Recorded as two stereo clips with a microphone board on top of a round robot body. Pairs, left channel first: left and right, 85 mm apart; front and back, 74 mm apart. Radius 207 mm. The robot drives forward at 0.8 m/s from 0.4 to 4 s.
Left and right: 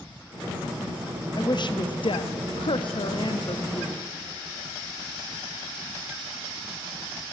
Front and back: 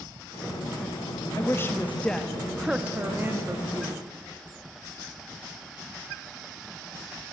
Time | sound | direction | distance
1.4 | a woman speaking | 55° left | 1.6 m